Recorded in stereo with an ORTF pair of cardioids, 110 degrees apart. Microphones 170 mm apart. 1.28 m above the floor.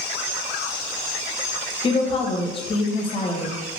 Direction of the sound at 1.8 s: 30° left.